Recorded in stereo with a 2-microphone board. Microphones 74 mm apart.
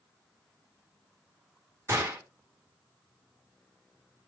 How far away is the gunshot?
About 1.6 m.